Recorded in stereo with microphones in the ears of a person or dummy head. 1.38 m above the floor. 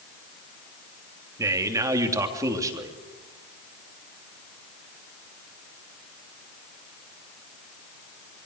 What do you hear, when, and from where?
1.4 s a man speaking: 20° right (ahead or behind), 3 m